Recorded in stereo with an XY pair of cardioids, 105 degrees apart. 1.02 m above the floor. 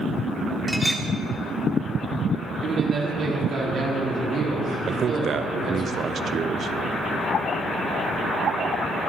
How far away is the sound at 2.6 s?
About 2 m.